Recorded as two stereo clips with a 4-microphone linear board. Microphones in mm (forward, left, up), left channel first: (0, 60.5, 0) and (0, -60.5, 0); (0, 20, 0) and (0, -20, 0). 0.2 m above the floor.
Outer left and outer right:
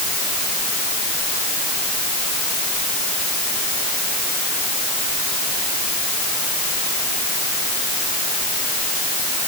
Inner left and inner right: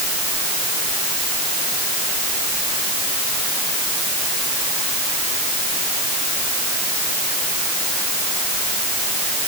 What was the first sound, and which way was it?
Only background noise.